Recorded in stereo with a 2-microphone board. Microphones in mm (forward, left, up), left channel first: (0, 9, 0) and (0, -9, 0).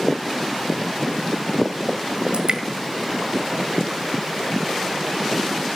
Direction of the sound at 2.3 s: 70° right (ahead or behind).